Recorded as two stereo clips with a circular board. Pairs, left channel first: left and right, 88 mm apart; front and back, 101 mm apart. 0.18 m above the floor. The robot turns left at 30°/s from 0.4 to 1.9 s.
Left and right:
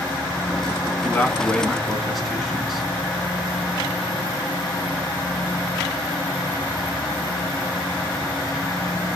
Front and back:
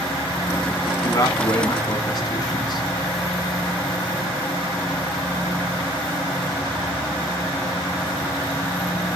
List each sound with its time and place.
1.0 s a man speaking: 25° left, 1.3 m; by 2.9 s straight ahead, 1.3 m